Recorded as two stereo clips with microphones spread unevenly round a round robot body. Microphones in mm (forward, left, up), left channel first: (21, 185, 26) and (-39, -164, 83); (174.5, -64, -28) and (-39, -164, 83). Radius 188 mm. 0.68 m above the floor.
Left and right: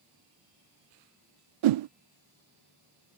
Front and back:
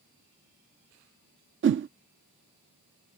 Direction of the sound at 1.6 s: 105° right.